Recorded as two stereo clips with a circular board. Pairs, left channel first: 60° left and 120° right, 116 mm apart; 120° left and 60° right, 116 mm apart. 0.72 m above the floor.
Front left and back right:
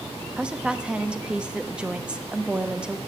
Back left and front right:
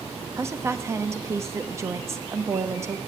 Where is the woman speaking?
50° right, 0.9 m.